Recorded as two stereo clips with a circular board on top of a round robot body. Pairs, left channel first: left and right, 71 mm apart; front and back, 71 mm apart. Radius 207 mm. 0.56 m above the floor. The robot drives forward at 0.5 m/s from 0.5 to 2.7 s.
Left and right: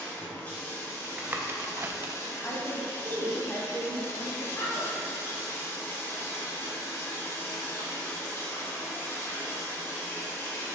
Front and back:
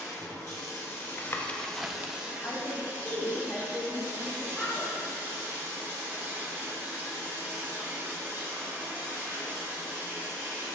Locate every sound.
0.0 s running water: 35° left, 1.1 m; by 10.7 s 135° left, 0.9 m
1.0 s tapping: 30° right, 0.6 m; by 2.1 s 135° right, 0.5 m
2.4 s a woman speaking: 50° left, 1.1 m; by 4.9 s 60° left, 1.1 m